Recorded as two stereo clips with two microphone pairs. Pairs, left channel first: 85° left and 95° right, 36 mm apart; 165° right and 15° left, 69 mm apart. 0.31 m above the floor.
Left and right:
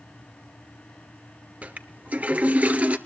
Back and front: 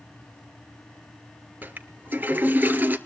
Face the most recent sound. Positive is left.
turn(degrees=-50)